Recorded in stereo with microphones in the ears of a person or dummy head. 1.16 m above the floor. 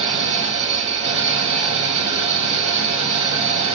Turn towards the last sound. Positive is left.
turn(degrees=-35)  # may be behind; listen again after turning